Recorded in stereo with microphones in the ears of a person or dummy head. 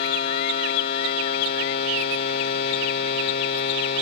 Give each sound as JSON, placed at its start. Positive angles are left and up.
{"t": 0.0, "sound": "a machine running", "side_deg": 55, "distance_m": 2.0}